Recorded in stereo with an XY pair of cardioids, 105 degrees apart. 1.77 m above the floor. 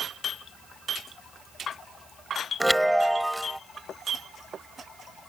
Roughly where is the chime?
Ahead.